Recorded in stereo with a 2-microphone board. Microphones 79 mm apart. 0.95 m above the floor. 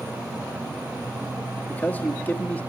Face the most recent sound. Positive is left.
turn(degrees=20)  # may be behind; listen again after turning